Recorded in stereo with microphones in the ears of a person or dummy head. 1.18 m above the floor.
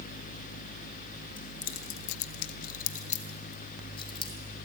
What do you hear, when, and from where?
1.4 s keys jangling: 25° left (ahead or behind), 0.8 m